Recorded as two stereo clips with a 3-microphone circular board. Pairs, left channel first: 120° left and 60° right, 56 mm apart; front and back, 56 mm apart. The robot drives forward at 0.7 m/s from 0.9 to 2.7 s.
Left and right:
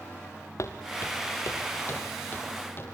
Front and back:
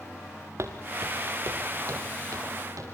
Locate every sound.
0.6 s footsteps: 150° left, 2.5 m; by 2.8 s 170° left, 6.5 m